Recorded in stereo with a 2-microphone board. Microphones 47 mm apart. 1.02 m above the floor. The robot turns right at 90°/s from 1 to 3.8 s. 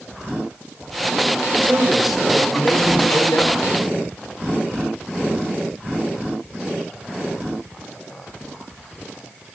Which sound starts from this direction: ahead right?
A man speaking, at 1.5 s.